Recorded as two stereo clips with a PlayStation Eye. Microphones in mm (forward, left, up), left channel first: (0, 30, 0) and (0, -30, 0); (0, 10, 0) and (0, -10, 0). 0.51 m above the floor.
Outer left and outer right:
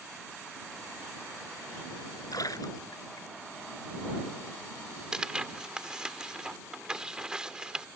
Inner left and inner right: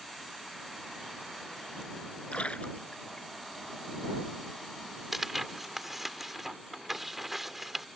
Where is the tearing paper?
15° right (ahead or behind).